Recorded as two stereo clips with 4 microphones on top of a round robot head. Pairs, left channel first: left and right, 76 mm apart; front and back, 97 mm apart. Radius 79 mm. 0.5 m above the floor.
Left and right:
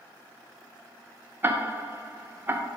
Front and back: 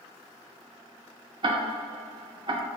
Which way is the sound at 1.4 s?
150° right.